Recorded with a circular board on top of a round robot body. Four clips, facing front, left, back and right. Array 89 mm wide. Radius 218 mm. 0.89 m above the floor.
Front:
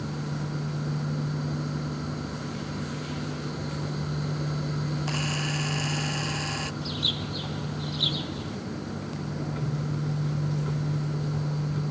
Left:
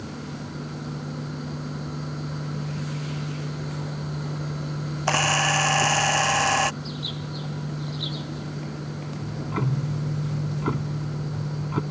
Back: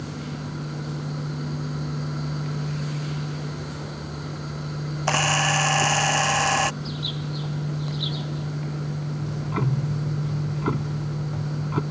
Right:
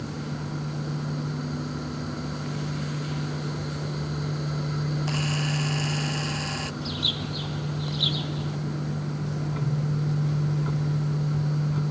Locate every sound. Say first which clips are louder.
5.1 s a camera shutter: left 6 dB, back 8 dB; 135° left
6.8 s a bird: right 2 dB, back 1 dB; 60° right
9.2 s ticking: left 1 dB, back 6 dB; 140° left